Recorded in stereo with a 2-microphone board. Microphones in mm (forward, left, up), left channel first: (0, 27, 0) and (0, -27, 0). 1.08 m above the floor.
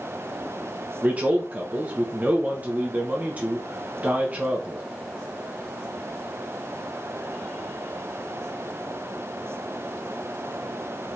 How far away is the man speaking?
About 0.9 m.